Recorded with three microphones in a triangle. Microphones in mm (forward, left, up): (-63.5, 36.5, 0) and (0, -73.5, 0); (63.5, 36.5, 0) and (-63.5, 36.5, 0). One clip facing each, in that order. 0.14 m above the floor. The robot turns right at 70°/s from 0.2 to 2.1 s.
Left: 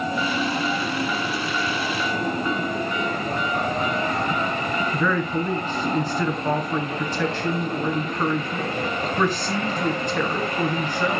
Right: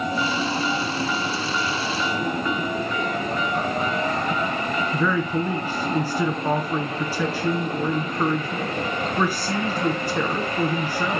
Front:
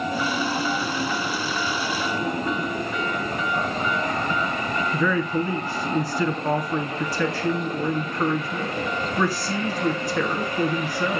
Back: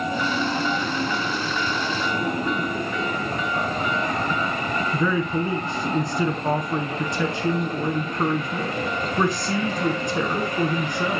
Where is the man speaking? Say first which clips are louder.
Right 1 dB, even; 130° right, 1.5 m.